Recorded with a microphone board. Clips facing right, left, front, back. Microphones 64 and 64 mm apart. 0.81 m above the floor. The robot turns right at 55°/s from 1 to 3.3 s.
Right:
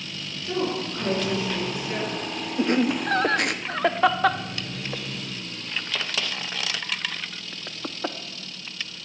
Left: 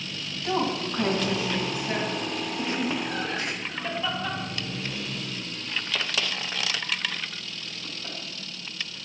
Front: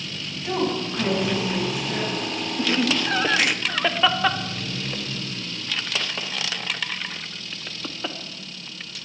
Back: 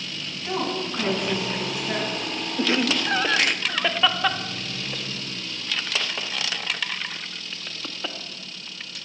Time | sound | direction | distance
0.4 | a woman speaking | 85° left | 5 m
2.6 | laughter | 125° right | 0.8 m